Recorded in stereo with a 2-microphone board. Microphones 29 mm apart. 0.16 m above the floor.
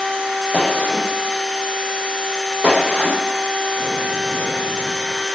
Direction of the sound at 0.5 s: 60° right (ahead or behind).